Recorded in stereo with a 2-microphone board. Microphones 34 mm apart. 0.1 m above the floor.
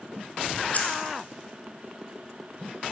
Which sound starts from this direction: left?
Keys jangling, at 0.7 s.